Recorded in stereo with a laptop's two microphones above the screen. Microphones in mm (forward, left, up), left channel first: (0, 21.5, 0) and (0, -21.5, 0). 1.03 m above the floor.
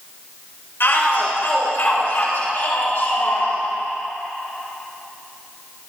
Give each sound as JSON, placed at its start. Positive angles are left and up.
{"t": 0.8, "sound": "a shout", "side_deg": 65, "distance_m": 5.0}